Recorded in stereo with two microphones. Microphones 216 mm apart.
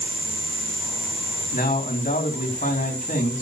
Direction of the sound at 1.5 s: 40° left (ahead or behind).